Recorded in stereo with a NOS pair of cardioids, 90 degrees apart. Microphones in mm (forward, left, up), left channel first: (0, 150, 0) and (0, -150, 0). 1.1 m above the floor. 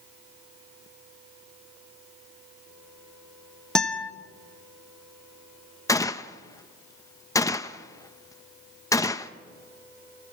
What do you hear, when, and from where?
3.8 s a guitar: straight ahead, 1.3 m
5.9 s a gunshot: 10° left, 0.8 m